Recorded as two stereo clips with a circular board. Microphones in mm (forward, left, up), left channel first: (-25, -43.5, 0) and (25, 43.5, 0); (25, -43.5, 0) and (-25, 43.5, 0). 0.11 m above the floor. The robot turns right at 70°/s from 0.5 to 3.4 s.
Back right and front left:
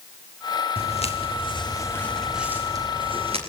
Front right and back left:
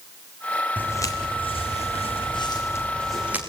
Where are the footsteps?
135° right, 3.5 m; by 3.4 s 50° left, 6 m.